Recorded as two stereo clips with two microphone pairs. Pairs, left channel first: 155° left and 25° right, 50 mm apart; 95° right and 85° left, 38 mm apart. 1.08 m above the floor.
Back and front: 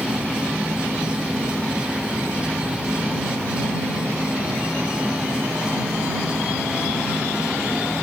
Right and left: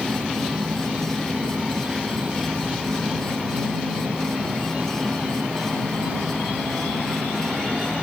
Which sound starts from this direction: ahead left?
An insect, at 0.0 s.